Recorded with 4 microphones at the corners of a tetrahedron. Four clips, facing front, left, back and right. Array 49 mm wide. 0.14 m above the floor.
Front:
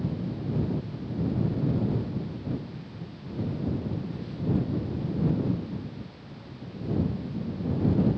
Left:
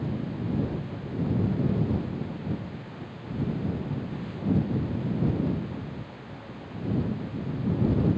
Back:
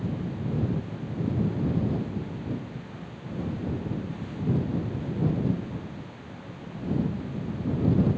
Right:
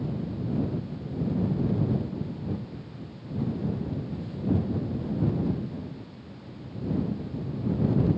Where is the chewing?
I don't hear chewing.